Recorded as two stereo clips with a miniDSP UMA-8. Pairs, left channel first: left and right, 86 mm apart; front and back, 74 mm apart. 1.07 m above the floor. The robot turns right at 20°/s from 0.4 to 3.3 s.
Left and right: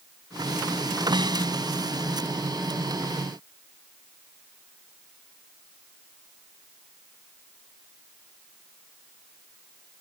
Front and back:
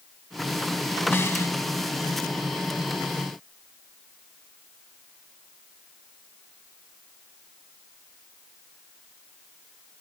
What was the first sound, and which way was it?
A snare drum, 60° right.